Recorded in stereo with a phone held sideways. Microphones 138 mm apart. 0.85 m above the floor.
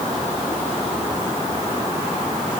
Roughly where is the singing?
I don't hear singing.